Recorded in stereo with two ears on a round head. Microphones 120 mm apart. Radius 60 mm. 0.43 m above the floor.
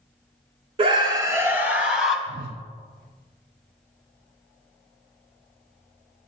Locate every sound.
0.8 s a scream: 40° right (ahead or behind), 1.2 m; by 2.2 s 5° right (ahead or behind), 2.5 m
2.3 s a whoosh: 75° right (ahead or behind), 0.7 m